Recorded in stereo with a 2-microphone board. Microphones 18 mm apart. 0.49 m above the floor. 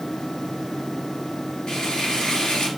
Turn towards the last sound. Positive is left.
turn(degrees=65)  # may be behind; listen again after turning